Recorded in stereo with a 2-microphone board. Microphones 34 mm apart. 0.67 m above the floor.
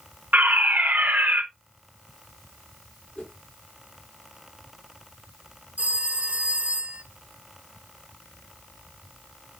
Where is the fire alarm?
60° right (ahead or behind), 4 m.